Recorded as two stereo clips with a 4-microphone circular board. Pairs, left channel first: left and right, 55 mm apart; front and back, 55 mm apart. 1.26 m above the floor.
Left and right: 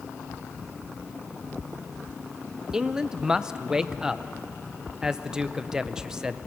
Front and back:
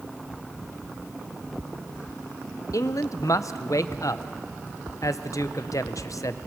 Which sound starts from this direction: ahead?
A man speaking, at 2.7 s.